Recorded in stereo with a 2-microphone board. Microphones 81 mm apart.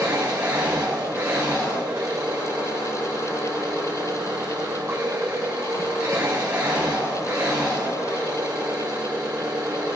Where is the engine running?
35° right (ahead or behind), 5.5 m.